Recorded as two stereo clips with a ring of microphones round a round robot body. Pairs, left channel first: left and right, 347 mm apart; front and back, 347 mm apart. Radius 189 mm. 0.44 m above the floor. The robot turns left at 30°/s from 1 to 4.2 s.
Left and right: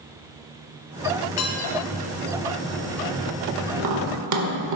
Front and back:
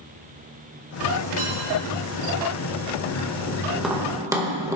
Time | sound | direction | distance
1.4 | dishes clattering | 110° left | 3 m
3.8 | tapping | 90° right | 1.8 m